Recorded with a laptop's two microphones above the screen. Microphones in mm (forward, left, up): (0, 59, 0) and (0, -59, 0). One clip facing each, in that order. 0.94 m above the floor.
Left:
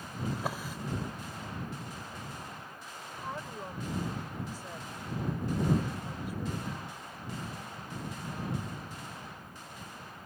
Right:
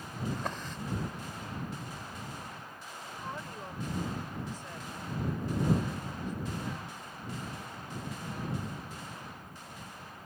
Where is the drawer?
10° left (ahead or behind).